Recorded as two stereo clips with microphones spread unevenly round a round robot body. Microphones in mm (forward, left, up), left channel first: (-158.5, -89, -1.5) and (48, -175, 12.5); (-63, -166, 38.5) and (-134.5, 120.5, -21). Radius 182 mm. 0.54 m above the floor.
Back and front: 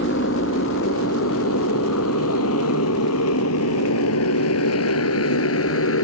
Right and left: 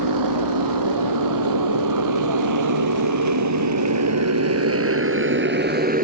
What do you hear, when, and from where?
0.0 s a motorcycle: 100° left; by 6.0 s 165° left